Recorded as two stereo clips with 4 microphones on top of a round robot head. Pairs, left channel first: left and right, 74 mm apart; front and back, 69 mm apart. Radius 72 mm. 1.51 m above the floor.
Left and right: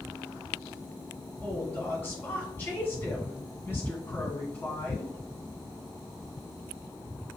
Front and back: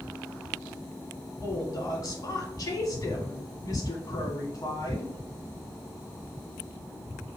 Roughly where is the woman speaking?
Ahead left.